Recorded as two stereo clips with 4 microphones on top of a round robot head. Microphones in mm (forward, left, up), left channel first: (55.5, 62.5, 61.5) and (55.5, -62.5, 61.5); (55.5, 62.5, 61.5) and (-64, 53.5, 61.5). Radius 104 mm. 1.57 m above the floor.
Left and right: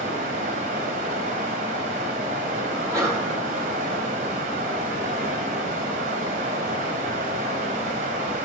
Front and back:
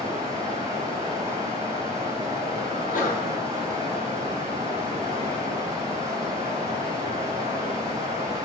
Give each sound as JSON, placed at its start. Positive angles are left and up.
{"t": 0.0, "sound": "running water", "azimuth_deg": -105, "distance_m": 1.9}
{"t": 2.7, "sound": "a sneeze", "azimuth_deg": -25, "distance_m": 5.0}